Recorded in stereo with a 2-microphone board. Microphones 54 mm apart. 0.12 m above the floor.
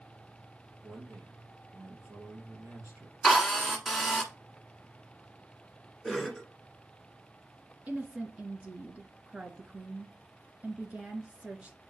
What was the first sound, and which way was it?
A man speaking, 50° right (ahead or behind).